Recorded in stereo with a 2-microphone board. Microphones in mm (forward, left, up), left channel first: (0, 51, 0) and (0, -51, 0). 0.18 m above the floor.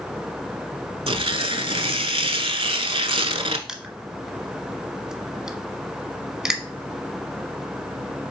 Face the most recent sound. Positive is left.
turn(degrees=-5)  # may be behind; listen again after turning